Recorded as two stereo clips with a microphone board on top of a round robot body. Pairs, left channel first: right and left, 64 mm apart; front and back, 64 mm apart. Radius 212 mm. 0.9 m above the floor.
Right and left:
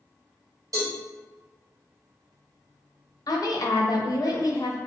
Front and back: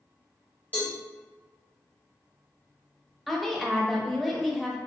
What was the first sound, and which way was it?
A cowbell, 65° left.